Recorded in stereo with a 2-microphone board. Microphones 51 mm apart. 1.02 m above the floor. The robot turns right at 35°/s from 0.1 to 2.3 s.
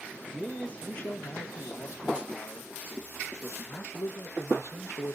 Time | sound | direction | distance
0.3 | a man speaking | 10° left | 1.1 m